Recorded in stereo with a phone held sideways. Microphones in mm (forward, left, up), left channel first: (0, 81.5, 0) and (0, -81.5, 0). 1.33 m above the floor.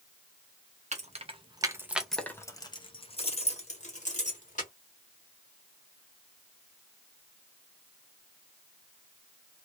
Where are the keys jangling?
45° right (ahead or behind), 0.7 m; by 4.7 s 50° left (ahead or behind), 1.5 m.